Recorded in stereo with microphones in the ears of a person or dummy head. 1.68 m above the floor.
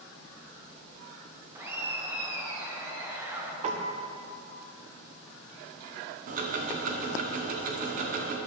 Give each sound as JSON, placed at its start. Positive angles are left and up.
{"t": 1.6, "sound": "laughter", "side_deg": -10, "distance_m": 1.3}
{"t": 3.6, "sound": "a piano", "side_deg": -40, "distance_m": 0.6}
{"t": 6.3, "sound": "ticking", "side_deg": -45, "distance_m": 0.7}